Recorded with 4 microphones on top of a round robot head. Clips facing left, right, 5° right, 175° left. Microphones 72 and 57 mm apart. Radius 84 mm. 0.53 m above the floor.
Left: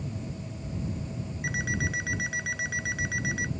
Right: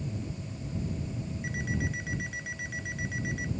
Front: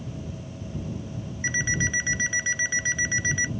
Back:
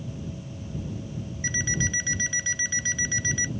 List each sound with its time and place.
1.4 s an alarm clock: 65° left